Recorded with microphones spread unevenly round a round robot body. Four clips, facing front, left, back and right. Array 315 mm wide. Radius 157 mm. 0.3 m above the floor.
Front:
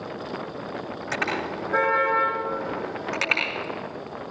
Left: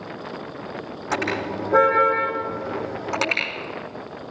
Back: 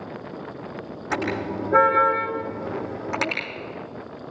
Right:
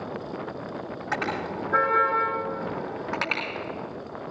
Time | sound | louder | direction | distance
1.1 | a car horn | left 4 dB, back 3 dB | 155° left | 9.5 m